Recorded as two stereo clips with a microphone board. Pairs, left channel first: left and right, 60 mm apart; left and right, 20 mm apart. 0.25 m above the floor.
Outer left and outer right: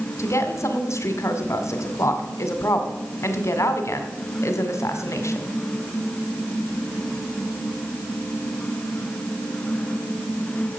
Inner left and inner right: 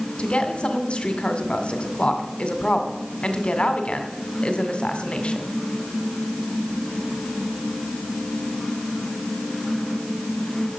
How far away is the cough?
No cough in this recording.